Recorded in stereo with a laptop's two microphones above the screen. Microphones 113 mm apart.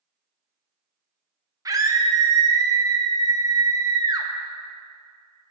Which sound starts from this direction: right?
A scream, at 1.6 s.